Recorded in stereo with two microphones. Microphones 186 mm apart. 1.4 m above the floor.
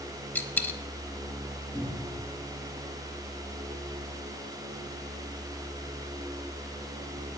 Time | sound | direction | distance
0.3 | a dropped coin | 10° left (ahead or behind) | 0.8 m
1.7 | a cupboard door | 35° left (ahead or behind) | 3 m